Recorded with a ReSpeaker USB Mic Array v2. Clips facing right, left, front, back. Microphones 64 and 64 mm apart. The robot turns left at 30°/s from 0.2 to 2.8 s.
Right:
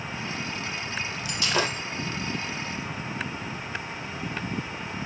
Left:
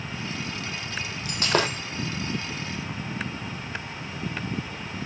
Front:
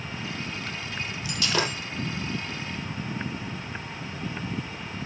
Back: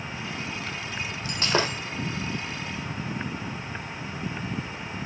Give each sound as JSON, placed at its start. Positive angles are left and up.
{"t": 1.2, "sound": "breaking glass", "azimuth_deg": 135, "distance_m": 3.0}